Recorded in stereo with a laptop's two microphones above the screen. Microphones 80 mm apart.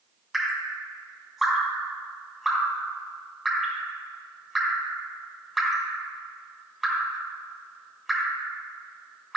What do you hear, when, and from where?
0.3 s dripping: centre (ahead or behind), 2.5 m